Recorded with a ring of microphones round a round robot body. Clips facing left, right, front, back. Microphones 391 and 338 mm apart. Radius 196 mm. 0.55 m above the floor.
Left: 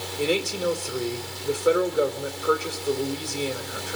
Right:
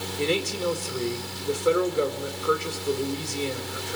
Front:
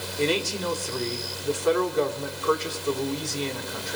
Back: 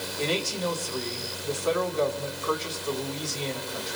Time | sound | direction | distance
0.2 | a man speaking | 5° right | 2 m